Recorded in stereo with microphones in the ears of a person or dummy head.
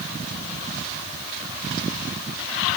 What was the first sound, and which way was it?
Only background noise.